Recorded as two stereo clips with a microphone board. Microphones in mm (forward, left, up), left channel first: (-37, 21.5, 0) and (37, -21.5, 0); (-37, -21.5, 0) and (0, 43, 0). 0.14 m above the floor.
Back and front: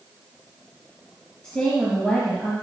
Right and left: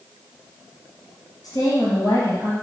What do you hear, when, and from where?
1.4 s a woman speaking: 135° right, 2.5 m